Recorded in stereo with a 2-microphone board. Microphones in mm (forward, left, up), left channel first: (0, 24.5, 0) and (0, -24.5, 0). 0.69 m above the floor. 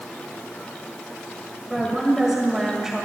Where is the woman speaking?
10° right (ahead or behind), 2.5 m.